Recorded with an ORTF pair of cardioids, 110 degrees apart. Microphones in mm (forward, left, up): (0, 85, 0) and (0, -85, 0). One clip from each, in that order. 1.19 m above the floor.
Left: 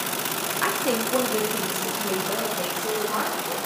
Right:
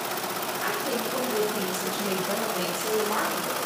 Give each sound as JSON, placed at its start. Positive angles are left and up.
{"t": 0.6, "sound": "a woman speaking", "azimuth_deg": 65, "distance_m": 0.6}